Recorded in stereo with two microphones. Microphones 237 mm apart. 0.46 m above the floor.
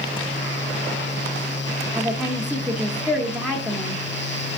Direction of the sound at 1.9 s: 5° right (ahead or behind).